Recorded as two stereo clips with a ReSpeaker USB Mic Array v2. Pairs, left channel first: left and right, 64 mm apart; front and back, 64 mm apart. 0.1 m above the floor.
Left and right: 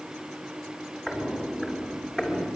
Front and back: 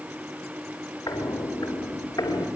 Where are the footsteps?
Straight ahead, 4.5 m; by 2.5 s 10° left, 3.5 m.